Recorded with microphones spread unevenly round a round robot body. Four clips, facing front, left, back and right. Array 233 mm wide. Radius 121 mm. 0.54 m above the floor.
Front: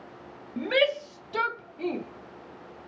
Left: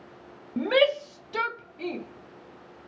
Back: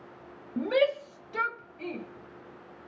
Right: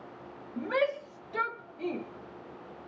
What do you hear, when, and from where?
0.6 s a shout: 95° left, 0.8 m; by 2.0 s straight ahead, 1.1 m